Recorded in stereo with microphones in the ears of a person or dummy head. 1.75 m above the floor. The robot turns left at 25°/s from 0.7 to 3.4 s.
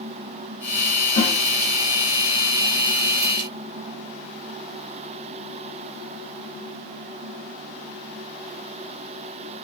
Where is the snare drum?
30° left (ahead or behind), 1.4 m.